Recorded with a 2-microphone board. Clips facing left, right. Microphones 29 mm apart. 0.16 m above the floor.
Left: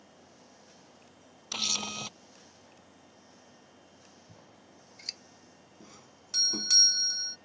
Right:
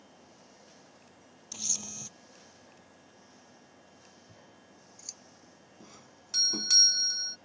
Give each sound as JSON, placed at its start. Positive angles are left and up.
{"t": 1.5, "sound": "a camera shutter", "side_deg": 65}
{"t": 4.3, "sound": "scissors", "side_deg": 60}
{"t": 5.8, "sound": "a doorbell", "side_deg": -5}